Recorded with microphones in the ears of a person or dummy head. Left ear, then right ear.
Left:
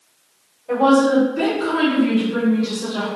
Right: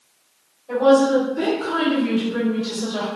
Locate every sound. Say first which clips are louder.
0.7 s a woman speaking: even; 50° left (ahead or behind), 1.6 m; by 3.1 s 20° right (ahead or behind), 0.9 m